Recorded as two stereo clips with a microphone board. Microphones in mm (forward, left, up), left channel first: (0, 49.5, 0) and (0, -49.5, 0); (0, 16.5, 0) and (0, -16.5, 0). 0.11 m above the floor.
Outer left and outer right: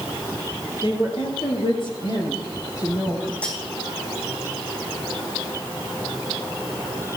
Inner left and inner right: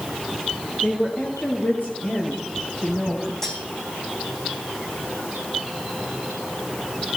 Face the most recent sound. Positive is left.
turn(degrees=15)  # may be behind; listen again after turning